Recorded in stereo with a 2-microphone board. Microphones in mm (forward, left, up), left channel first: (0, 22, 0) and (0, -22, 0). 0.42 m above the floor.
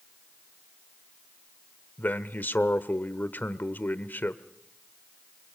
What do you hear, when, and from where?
2.0 s a man speaking: 45° left (ahead or behind), 1.0 m